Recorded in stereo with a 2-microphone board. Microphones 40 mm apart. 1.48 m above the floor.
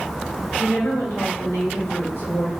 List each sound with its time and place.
0.6 s a woman speaking: 75° left (ahead or behind), 1.0 m